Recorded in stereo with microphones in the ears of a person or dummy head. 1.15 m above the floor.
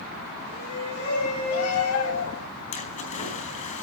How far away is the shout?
About 9.5 m.